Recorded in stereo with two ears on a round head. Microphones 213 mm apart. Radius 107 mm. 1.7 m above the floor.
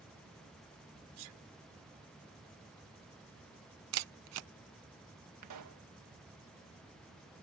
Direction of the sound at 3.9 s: 70° right (ahead or behind).